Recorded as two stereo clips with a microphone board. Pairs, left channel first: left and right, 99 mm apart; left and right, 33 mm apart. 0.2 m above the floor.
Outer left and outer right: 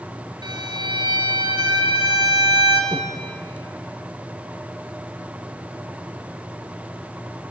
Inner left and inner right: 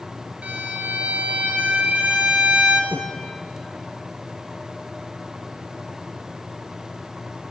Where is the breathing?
50° right (ahead or behind), 3.5 m.